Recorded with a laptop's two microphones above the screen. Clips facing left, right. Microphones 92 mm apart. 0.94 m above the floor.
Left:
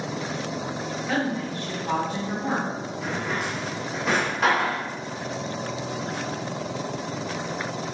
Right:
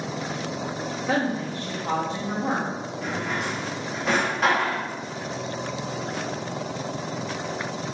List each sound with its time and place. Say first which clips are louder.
1.1 s a woman speaking: right 2 dB; 30° right (ahead or behind), 1.1 m
3.0 s a drawer: even; centre (ahead or behind), 0.9 m